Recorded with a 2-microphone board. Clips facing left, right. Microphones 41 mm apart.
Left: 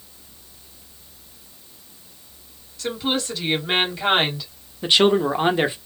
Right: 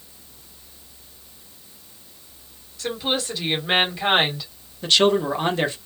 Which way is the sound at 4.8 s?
20° left (ahead or behind).